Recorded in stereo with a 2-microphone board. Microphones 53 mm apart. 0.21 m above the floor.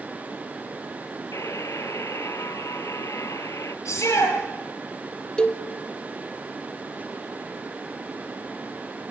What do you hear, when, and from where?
1.3 s a buzzer: 75° left (ahead or behind), 1.0 m
3.9 s a shout: 65° left (ahead or behind), 4 m
5.4 s a cowbell: 20° left (ahead or behind), 1.1 m